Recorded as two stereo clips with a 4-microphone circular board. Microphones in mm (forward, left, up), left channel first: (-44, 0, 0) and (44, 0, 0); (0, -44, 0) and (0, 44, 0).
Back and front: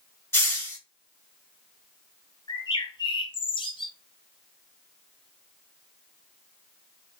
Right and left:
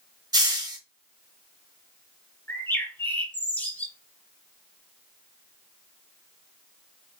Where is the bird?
160° right, 0.9 m.